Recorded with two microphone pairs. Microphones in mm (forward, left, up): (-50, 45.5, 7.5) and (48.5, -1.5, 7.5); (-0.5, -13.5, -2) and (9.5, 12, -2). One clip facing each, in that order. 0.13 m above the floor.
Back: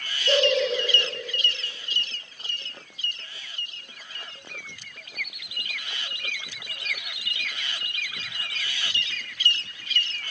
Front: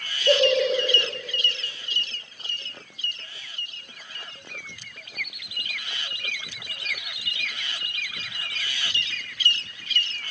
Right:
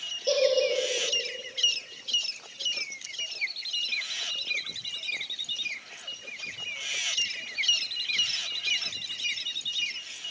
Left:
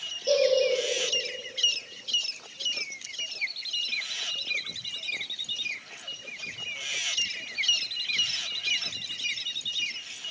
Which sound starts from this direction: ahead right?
A giggle, at 0.3 s.